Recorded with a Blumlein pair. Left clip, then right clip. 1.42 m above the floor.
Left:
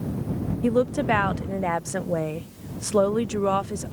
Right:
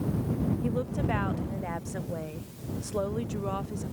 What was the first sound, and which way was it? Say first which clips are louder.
A woman speaking: left 14 dB; 30° left.